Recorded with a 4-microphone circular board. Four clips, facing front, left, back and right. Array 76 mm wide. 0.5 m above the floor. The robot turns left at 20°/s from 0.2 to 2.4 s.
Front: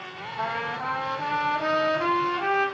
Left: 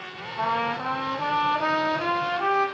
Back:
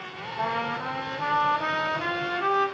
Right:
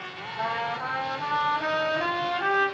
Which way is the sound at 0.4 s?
95° left.